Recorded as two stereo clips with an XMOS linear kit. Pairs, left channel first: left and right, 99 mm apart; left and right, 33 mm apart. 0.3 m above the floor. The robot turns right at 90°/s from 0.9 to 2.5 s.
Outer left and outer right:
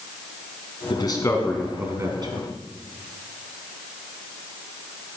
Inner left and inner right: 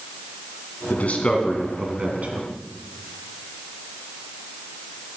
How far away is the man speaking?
About 3 m.